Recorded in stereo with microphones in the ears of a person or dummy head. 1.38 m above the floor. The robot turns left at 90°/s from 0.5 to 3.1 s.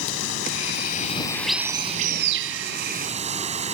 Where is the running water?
90° left; by 3.7 s 145° right.